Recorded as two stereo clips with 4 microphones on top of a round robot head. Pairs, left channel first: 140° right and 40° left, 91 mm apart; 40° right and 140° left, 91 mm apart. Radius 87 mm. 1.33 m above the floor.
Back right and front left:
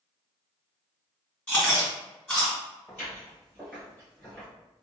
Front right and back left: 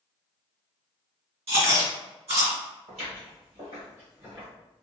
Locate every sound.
1.5 s chewing: 150° left, 1.9 m
2.9 s footsteps: 155° left, 1.9 m; by 4.5 s 175° left, 1.2 m